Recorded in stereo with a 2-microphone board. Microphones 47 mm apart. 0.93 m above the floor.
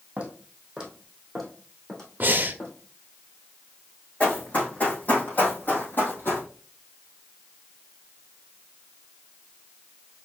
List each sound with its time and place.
0.2 s footsteps: 35° right (ahead or behind), 2.5 m; by 2.7 s 25° left (ahead or behind), 3.5 m
2.2 s breathing: 45° right (ahead or behind), 0.5 m
4.2 s running footsteps: 30° left (ahead or behind), 3.5 m; by 6.4 s 55° left (ahead or behind), 2.5 m